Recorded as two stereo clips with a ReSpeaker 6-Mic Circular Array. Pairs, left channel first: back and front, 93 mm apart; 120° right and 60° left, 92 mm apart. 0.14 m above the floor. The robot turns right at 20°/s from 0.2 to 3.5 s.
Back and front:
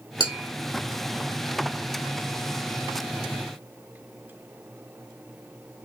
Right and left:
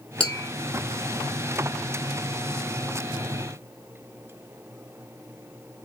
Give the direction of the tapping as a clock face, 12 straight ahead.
5 o'clock.